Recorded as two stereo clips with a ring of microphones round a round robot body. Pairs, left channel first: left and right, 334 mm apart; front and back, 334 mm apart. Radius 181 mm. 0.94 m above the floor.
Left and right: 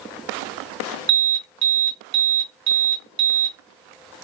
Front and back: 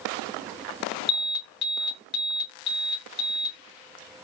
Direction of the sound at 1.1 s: 40° right.